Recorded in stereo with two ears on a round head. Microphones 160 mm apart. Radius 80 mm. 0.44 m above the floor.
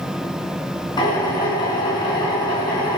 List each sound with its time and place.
1.0 s a drill: 25° left (ahead or behind), 4.5 m